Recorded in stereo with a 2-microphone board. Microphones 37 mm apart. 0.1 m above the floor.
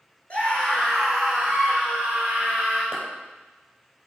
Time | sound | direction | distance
0.3 | a scream | 35° left (ahead or behind) | 1.4 m
2.9 | a clap | 20° right (ahead or behind) | 2.5 m